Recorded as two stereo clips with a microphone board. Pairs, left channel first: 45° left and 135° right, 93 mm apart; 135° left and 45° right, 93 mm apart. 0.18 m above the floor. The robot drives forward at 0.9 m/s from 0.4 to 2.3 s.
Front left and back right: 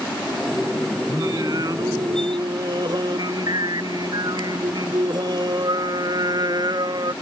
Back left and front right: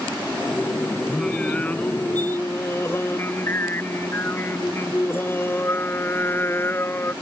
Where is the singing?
145° right; by 7.1 s 165° right.